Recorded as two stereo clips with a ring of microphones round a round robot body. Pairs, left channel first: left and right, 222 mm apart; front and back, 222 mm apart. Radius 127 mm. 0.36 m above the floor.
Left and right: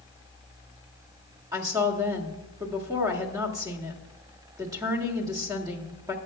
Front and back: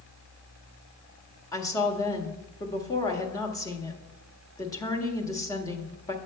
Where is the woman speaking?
45° right, 1.5 m.